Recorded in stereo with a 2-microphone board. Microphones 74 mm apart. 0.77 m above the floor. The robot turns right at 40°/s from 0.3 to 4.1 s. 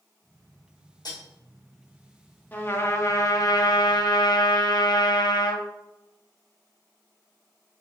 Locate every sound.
1.1 s cutlery clinking: 65° left (ahead or behind), 2.0 m; by 1.2 s 55° left (ahead or behind), 2.0 m
2.5 s a trumpet: 25° left, 0.7 m; by 5.6 s 90° left, 0.7 m